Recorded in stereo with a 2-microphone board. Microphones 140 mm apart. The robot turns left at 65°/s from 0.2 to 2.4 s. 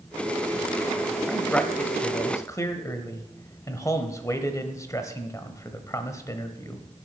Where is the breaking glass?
No breaking glass in this recording.